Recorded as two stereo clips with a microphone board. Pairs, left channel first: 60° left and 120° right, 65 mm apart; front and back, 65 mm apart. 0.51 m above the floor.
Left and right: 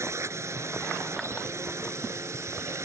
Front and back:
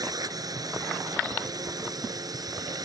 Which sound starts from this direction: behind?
A drone, at 0.0 s.